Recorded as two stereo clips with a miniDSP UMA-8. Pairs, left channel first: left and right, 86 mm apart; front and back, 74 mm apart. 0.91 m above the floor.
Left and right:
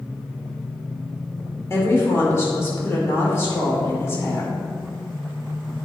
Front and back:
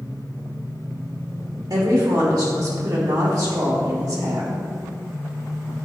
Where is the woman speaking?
150° left, 2 m.